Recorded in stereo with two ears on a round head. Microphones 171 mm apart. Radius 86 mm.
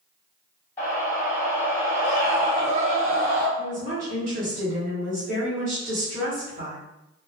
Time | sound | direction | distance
0.8 | a scream | 15° left (ahead or behind) | 1.2 m
3.6 | a woman speaking | 40° right (ahead or behind) | 1.5 m